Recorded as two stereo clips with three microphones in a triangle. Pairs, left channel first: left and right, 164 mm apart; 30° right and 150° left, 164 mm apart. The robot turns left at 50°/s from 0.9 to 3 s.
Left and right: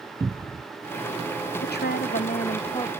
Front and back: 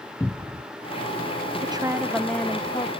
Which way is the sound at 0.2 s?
75° right.